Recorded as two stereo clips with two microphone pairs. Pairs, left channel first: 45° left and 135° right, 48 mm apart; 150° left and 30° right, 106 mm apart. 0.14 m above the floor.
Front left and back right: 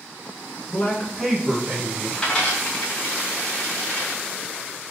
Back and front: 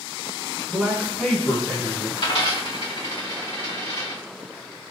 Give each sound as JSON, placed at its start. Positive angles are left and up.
{"t": 0.7, "sound": "a man speaking", "azimuth_deg": 40, "distance_m": 1.4}
{"t": 2.2, "sound": "a dropped coin", "azimuth_deg": 115, "distance_m": 2.5}